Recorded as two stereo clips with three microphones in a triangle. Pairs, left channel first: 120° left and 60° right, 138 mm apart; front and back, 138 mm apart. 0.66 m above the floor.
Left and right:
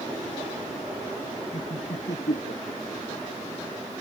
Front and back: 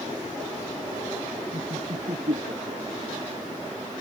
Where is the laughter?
145° left; by 3.2 s 150° left.